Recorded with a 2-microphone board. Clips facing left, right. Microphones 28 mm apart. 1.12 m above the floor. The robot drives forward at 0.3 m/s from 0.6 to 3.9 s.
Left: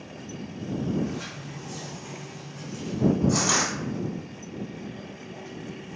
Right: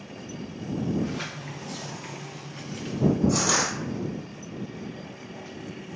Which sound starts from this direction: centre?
Crushing, at 3.3 s.